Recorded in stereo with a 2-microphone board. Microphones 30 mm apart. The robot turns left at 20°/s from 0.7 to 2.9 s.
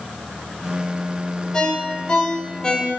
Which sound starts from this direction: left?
A ringtone, at 1.5 s.